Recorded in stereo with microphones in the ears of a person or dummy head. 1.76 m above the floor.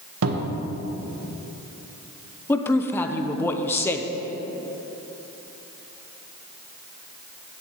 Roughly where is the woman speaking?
Centre.